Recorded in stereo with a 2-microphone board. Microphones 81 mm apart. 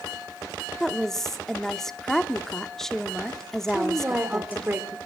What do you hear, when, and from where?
0.8 s a woman speaking: 5° left (ahead or behind), 1.0 m
3.7 s a woman speaking: 25° right (ahead or behind), 1.6 m